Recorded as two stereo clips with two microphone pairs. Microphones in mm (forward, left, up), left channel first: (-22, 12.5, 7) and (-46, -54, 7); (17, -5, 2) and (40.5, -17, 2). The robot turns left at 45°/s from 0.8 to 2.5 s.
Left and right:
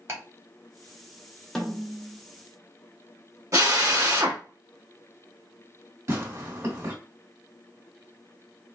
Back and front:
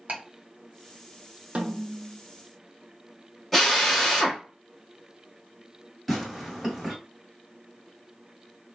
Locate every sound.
0.1 s ticking: 60° right, 1.2 m
1.6 s a snare drum: 15° right, 0.6 m; by 2.2 s 45° right, 0.6 m
3.5 s a drill: 120° right, 1.1 m
6.1 s tearing paper: 120° right, 1.5 m